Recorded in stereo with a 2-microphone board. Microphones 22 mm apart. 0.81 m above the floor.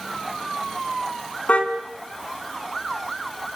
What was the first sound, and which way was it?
A car horn, 70° left (ahead or behind).